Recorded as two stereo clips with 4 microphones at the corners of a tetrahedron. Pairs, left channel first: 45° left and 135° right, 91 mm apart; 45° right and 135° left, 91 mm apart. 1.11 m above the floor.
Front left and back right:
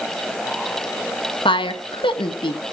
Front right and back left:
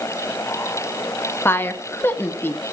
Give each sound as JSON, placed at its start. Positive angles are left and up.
{"t": 1.4, "sound": "a woman speaking", "azimuth_deg": 20, "distance_m": 1.5}